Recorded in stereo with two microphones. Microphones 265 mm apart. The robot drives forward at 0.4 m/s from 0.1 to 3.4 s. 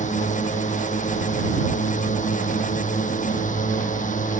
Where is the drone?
30° left (ahead or behind).